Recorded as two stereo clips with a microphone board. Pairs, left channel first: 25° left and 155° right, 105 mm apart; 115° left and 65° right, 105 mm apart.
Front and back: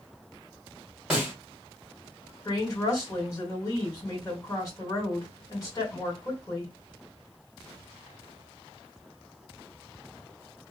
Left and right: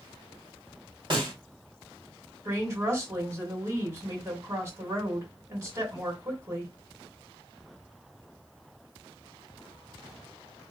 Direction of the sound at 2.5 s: 20° right.